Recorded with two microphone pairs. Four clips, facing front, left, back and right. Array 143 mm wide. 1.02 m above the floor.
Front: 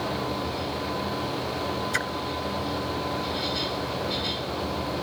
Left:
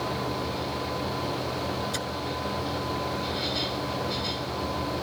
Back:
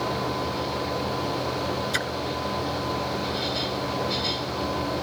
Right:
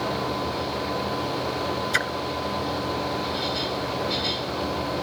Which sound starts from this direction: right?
A splash, at 1.9 s.